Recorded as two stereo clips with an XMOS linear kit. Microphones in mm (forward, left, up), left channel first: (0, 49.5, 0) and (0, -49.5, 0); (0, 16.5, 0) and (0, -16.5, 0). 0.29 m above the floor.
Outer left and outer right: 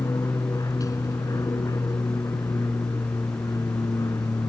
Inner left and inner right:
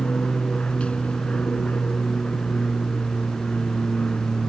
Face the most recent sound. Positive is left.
turn(degrees=35)  # may be behind; listen again after turning